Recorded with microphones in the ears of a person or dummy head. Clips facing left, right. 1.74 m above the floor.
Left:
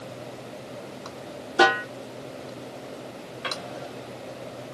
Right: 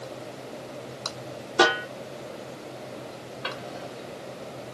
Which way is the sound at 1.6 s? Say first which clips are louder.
Left 1 dB; 15° left (ahead or behind).